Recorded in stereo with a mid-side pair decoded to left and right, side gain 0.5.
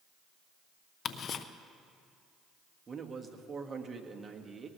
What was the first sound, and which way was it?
Ticking, 50° left.